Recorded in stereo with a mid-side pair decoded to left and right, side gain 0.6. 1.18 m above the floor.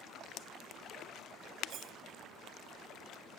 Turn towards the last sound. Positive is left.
turn(degrees=-50)